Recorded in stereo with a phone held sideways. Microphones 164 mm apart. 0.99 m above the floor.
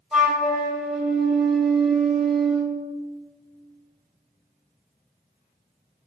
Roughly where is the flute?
Centre.